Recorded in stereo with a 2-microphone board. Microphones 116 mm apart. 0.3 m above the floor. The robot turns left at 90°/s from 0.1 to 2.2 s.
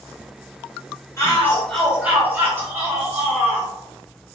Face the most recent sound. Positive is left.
turn(degrees=-35)